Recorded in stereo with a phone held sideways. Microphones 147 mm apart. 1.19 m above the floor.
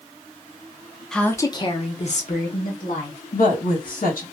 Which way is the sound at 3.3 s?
75° left (ahead or behind).